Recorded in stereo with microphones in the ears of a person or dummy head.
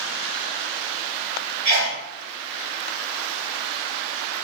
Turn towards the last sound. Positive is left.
turn(degrees=-55)  # may be behind; listen again after turning